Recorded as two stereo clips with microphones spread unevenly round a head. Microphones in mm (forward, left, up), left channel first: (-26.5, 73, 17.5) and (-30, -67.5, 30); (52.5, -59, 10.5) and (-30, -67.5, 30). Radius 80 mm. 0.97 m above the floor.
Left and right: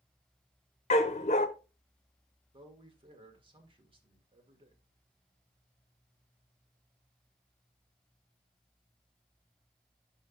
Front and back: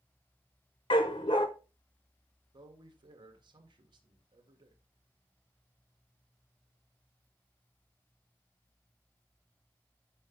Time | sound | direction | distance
0.9 | a dog barking | 50° left | 0.6 m
2.5 | a man speaking | 145° right | 1.7 m